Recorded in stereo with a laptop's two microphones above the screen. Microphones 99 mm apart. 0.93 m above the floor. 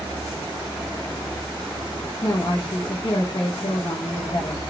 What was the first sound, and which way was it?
A woman speaking, 55° left (ahead or behind).